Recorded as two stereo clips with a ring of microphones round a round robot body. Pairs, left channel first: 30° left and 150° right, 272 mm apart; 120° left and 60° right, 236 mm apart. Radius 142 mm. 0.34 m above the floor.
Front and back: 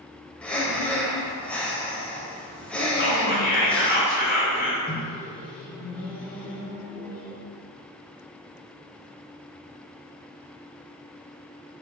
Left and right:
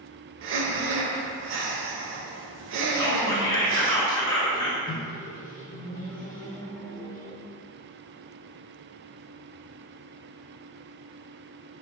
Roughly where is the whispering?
Ahead left.